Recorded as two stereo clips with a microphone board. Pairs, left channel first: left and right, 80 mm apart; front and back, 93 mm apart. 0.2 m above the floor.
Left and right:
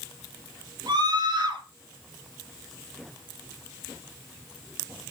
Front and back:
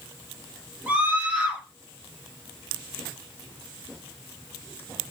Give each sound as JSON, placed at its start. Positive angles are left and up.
{"t": 0.9, "sound": "a scream", "azimuth_deg": -105, "distance_m": 6.0}